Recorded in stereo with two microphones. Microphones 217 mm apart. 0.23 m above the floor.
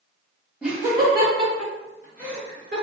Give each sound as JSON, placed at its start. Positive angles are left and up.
{"t": 0.6, "sound": "laughter", "side_deg": -5, "distance_m": 1.0}